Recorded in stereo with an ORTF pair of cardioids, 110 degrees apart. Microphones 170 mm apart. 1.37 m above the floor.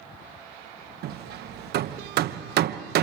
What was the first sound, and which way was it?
Hammering, 65° right.